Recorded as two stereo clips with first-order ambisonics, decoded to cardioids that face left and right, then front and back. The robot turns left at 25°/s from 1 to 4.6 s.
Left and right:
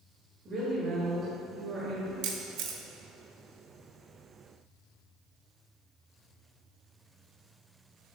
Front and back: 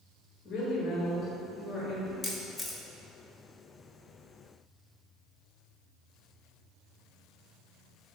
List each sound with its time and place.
0.5 s a woman speaking: 50° right, 1.3 m; by 2.1 s 80° right, 1.3 m
2.2 s a camera shutter: 75° right, 0.7 m; by 2.8 s 85° right, 0.7 m